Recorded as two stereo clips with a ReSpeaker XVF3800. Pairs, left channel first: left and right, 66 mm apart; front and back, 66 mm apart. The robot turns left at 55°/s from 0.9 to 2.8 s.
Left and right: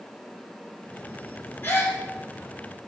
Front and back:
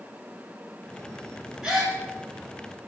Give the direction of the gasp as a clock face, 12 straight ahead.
8 o'clock.